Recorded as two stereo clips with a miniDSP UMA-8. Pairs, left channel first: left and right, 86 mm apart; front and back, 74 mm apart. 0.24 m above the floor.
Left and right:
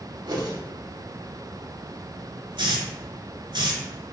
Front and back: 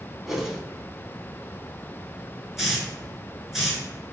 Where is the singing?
I don't hear singing.